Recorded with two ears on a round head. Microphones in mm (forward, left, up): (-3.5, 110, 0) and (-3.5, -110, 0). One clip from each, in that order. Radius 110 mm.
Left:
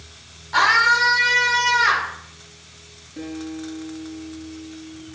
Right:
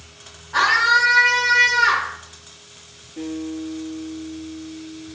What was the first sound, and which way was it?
A scream, 70° left (ahead or behind).